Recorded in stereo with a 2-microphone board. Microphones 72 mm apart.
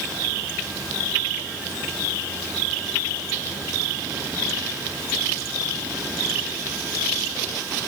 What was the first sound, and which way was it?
Only background noise.